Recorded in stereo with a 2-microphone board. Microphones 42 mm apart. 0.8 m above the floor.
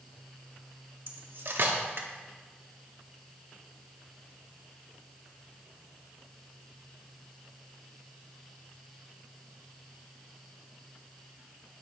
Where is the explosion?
I don't hear an explosion.